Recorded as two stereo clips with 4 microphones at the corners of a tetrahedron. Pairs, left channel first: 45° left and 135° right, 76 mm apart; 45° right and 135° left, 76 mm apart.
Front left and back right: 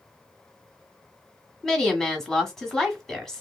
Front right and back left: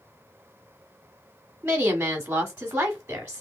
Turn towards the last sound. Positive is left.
turn(degrees=125)